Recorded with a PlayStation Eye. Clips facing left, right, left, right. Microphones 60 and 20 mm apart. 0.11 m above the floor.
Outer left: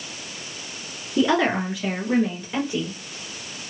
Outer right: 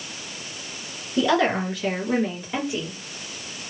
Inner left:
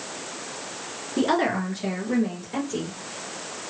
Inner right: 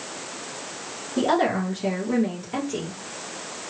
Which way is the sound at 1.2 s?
25° left (ahead or behind).